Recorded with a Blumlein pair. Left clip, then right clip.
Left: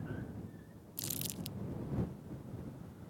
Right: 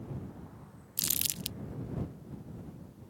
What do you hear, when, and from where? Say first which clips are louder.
1.0 s crumpling: right 9 dB; 65° right